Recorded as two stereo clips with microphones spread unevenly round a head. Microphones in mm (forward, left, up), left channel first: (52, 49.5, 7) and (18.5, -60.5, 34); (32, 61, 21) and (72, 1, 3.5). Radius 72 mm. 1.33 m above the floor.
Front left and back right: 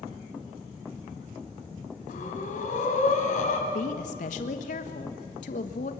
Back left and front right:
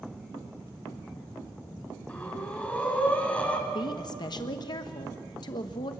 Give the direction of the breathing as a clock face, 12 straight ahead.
10 o'clock.